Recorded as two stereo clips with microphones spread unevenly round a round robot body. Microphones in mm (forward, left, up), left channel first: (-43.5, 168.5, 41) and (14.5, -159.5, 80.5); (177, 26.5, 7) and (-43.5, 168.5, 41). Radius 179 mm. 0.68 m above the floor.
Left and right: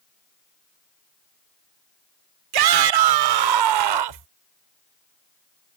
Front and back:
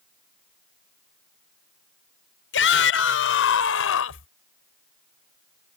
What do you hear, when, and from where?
2.5 s a shout: 80° right; by 4.3 s 85° right